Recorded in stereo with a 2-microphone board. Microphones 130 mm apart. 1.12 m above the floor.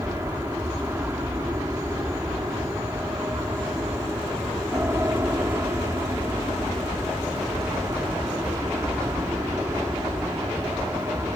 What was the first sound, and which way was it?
An aircraft, 20° right (ahead or behind).